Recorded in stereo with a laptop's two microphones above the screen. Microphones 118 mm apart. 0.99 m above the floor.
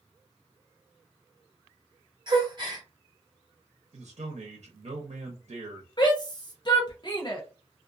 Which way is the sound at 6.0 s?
40° left (ahead or behind).